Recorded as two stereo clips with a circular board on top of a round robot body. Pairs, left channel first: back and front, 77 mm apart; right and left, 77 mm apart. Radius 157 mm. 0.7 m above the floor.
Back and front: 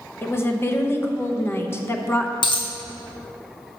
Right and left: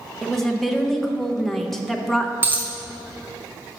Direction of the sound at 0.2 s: 175° right.